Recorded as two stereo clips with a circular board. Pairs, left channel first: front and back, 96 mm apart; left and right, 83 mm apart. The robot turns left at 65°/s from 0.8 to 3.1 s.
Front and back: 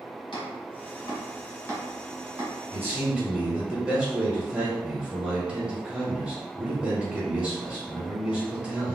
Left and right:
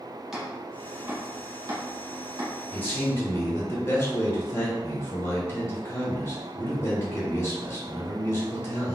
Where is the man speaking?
140° left, 1.2 m; by 8.9 s 115° left, 1.2 m.